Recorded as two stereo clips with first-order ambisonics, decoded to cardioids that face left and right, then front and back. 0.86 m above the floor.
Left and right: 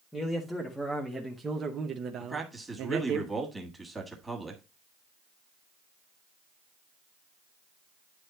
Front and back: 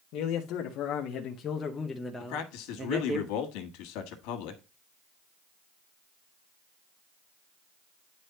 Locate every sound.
0.1 s a man speaking: 10° left, 1.2 m; by 3.2 s 125° right, 1.0 m
2.2 s a man speaking: 5° right, 1.6 m